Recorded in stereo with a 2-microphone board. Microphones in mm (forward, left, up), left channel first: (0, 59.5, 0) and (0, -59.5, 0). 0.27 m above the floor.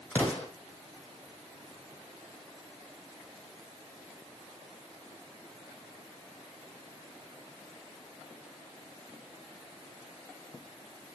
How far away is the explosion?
About 3.5 m.